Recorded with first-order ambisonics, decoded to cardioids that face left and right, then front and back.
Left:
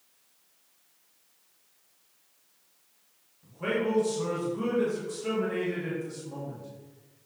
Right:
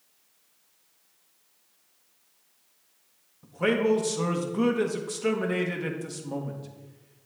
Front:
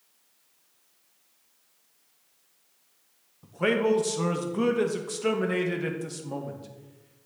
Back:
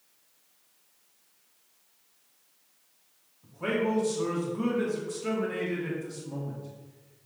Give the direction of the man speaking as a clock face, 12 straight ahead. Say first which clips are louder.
Right 5 dB, front 5 dB; 1 o'clock.